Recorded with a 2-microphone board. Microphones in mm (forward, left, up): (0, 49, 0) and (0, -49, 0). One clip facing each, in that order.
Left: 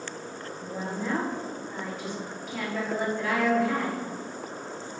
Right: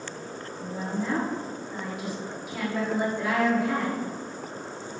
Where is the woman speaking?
5° right (ahead or behind), 1.9 m.